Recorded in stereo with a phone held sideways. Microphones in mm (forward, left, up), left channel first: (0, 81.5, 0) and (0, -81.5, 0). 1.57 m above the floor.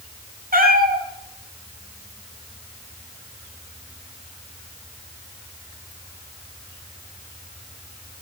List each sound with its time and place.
0.5 s a cat meowing: 60° right (ahead or behind), 3 m